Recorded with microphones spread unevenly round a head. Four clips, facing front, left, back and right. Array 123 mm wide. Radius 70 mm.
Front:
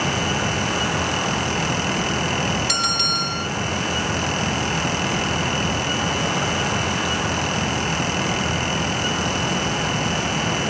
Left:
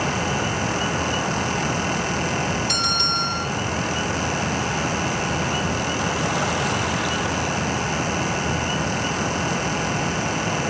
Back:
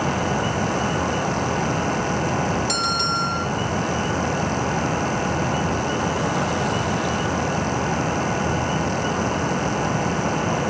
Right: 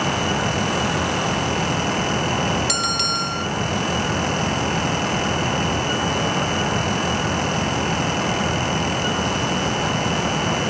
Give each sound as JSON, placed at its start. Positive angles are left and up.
{"t": 2.7, "sound": "a bell", "azimuth_deg": -75, "distance_m": 1.8}